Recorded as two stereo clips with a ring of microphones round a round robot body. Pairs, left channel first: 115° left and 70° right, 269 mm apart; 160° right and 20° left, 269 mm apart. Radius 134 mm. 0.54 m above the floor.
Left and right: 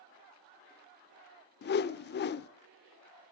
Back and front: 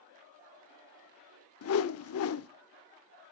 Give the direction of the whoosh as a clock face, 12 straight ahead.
6 o'clock.